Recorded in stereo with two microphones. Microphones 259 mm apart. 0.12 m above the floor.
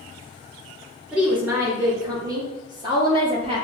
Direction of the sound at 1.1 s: 5° right (ahead or behind).